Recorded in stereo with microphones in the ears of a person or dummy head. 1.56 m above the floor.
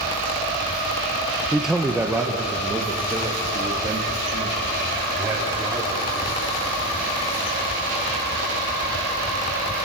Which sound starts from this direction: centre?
A man speaking, at 1.5 s.